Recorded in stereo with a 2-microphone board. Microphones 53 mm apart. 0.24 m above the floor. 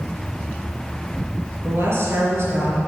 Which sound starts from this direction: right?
A woman speaking, at 1.6 s.